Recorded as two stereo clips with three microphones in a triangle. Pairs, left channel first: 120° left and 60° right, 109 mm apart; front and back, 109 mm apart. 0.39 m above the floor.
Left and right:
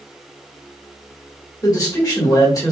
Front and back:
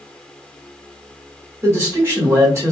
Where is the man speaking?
140° left, 1.4 m.